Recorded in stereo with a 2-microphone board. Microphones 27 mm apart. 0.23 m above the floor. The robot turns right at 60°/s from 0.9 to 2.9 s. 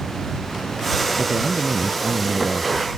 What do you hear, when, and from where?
1.2 s a man speaking: 130° right; by 2.9 s 25° right